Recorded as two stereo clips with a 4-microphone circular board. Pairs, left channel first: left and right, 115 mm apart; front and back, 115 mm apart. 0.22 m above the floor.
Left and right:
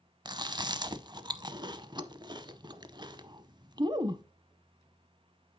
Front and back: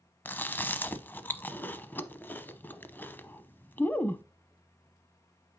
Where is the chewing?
65° right, 0.7 m.